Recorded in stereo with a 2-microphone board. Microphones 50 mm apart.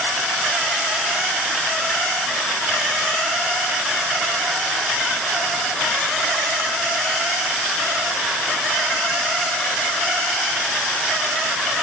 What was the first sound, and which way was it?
Only background noise.